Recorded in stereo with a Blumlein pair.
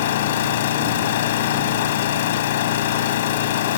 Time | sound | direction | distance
0.0 | an engine running | 55° left | ?